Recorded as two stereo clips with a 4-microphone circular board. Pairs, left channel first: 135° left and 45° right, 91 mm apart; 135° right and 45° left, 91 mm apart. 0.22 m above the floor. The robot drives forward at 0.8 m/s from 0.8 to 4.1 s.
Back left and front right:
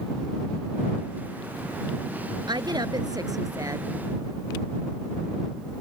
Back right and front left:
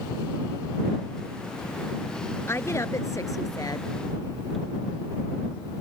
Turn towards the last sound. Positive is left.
turn(degrees=-100)